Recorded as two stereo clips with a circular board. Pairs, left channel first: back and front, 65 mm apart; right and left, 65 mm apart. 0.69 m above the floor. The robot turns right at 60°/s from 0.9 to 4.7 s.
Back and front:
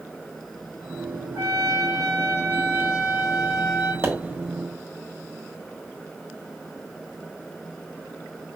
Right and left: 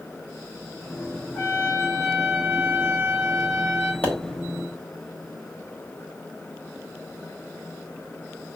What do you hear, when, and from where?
1.4 s a trumpet: 25° right, 2 m; by 3.9 s 130° left, 2 m
4.0 s a pop: 35° right, 1.2 m; by 4.1 s 25° right, 1.2 m